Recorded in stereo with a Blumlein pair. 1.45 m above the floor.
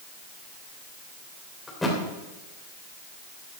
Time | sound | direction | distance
1.7 | a thud | 5° left | 3 m